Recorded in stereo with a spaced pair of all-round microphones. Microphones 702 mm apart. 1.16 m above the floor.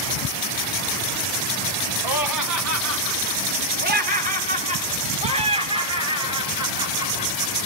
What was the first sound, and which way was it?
Laughter, 35° right (ahead or behind).